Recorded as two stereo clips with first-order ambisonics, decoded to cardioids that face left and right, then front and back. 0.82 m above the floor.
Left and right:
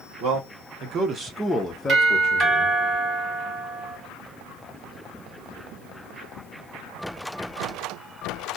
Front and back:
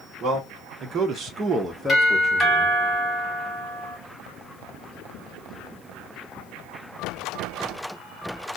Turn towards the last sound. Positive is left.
turn(degrees=-70)